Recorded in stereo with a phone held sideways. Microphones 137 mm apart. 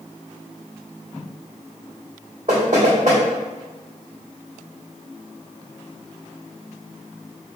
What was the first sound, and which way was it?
Knocking, 60° right (ahead or behind).